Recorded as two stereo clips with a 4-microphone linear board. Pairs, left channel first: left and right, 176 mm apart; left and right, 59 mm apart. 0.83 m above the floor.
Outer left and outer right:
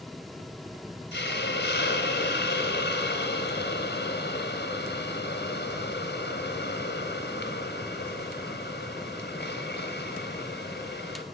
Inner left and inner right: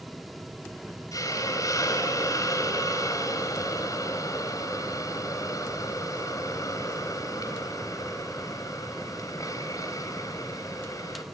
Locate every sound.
1.1 s a hiss: 85° left, 4 m